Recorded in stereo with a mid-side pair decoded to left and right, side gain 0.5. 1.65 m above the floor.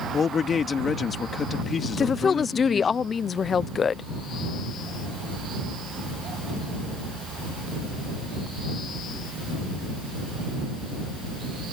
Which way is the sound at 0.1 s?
40° left.